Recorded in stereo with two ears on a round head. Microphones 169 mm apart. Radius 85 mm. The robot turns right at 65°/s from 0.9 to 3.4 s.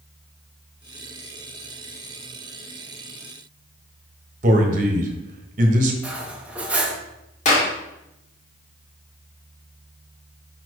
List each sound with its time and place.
4.4 s a man speaking: 45° right (ahead or behind), 1.2 m
6.0 s cutlery clinking: 5° right (ahead or behind), 1.0 m
7.5 s a clap: 40° left (ahead or behind), 1.7 m